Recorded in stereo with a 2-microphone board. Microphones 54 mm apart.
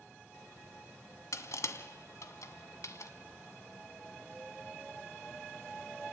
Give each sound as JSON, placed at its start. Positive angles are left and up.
{"t": 1.3, "sound": "crushing", "side_deg": 75, "distance_m": 1.6}